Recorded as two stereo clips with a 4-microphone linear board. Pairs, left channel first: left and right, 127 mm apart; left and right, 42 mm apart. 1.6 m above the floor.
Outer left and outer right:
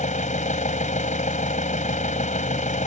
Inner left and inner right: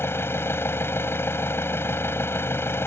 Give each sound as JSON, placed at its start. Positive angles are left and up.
{"t": 0.0, "sound": "an engine running", "side_deg": 75}